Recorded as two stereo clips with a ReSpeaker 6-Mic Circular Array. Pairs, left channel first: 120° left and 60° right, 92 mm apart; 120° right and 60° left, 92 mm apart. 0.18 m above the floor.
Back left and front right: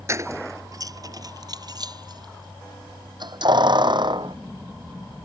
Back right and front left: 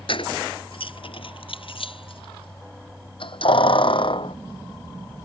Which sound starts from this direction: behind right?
Keys jangling, at 0.1 s.